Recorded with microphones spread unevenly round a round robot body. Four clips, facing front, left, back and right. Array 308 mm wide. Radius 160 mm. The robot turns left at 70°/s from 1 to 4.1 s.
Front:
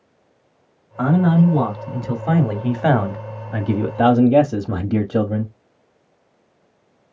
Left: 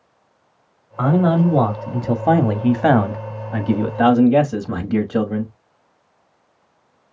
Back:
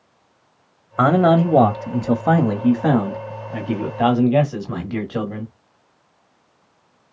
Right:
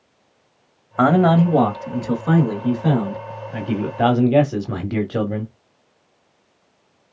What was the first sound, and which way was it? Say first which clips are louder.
A man speaking: right 2 dB, back 2 dB; 145° right.